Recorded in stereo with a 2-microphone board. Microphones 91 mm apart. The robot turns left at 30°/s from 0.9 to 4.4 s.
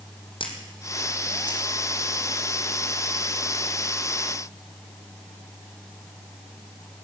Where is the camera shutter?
75° left (ahead or behind), 3 m; by 1.7 s 50° left (ahead or behind), 3 m.